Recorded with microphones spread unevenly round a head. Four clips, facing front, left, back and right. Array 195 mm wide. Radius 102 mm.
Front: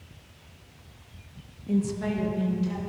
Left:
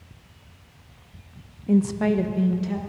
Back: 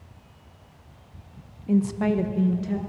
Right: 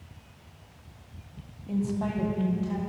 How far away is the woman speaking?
About 1.0 m.